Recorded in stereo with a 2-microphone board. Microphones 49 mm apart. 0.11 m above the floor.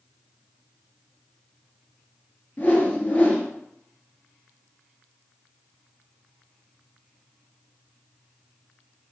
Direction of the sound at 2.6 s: 40° left (ahead or behind).